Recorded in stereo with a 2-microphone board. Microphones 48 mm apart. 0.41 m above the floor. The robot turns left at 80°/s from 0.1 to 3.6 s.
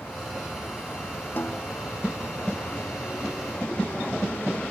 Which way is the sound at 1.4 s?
45° left (ahead or behind).